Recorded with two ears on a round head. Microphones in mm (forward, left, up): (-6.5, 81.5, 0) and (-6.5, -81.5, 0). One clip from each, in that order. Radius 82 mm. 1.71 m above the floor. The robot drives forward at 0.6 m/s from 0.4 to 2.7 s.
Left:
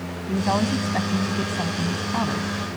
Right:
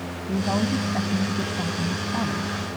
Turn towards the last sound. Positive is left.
turn(degrees=30)  # may be behind; listen again after turning